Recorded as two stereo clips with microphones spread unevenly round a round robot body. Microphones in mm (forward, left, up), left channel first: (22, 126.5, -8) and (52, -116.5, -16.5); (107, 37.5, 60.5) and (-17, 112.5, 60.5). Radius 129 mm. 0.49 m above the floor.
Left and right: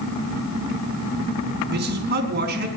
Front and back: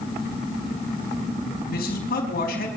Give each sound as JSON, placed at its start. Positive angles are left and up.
{"t": 1.7, "sound": "a man speaking", "azimuth_deg": -35, "distance_m": 4.5}